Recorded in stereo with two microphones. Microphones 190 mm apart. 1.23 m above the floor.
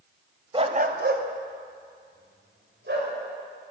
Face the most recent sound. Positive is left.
turn(degrees=-65)  # may be behind; listen again after turning